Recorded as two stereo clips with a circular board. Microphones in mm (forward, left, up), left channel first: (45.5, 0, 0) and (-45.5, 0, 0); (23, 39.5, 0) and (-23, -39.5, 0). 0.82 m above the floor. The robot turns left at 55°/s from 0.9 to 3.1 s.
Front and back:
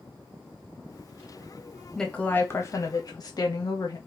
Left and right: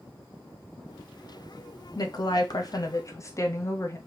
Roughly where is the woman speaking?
Left.